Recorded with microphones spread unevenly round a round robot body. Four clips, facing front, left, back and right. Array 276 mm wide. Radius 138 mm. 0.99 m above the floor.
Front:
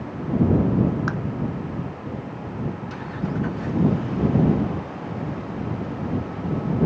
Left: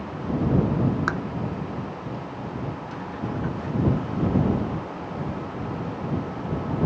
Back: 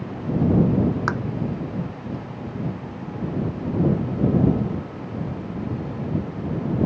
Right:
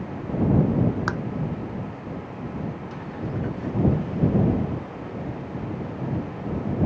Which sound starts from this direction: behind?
Tapping, at 1.1 s.